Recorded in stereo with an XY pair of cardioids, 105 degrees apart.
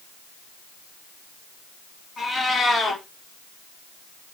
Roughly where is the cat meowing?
Ahead left.